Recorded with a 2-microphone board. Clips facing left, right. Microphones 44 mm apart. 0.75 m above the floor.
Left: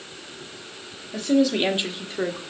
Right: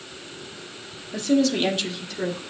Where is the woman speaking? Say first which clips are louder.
Left 1 dB; centre (ahead or behind), 1.3 m; by 2.4 s 35° left (ahead or behind), 1.6 m.